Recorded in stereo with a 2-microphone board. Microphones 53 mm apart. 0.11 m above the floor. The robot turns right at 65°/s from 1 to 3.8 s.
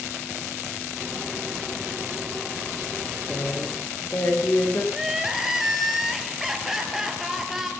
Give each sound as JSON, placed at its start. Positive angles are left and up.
{"t": 3.3, "sound": "a woman speaking", "azimuth_deg": 15, "distance_m": 7.5}
{"t": 4.9, "sound": "crying", "side_deg": -10, "distance_m": 2.0}